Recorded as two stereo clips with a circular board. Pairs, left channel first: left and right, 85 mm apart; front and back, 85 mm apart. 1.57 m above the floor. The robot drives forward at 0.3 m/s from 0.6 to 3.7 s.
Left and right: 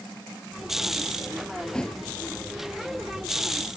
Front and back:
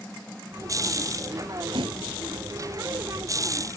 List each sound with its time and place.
1.7 s a thud: 170° left